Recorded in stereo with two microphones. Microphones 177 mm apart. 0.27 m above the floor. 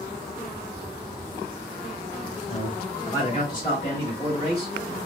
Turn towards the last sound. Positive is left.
turn(degrees=20)  # may be behind; listen again after turning